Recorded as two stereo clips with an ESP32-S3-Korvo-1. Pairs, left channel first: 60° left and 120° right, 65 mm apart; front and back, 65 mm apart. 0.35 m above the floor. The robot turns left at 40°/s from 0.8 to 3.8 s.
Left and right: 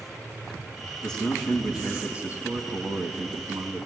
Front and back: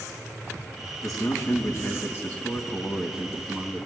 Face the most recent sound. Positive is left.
turn(degrees=-120)